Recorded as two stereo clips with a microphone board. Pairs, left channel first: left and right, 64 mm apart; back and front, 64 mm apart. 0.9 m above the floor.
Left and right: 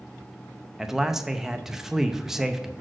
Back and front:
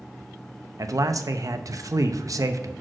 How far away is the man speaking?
About 0.6 m.